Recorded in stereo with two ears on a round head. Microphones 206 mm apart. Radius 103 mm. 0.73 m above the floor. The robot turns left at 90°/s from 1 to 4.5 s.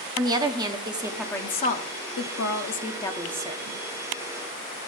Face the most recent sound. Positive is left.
turn(degrees=-115)